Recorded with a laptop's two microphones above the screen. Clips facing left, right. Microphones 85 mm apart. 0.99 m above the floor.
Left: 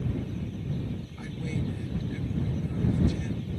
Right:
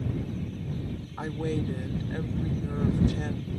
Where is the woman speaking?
55° right (ahead or behind).